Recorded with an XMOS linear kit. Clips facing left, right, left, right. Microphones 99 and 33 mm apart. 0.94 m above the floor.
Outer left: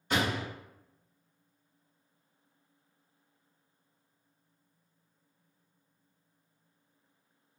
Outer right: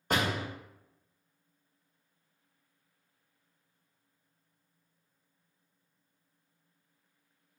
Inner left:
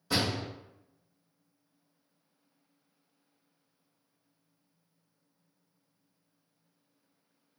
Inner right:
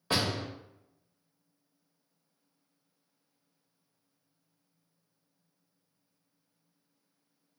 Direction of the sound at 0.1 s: 45° right (ahead or behind).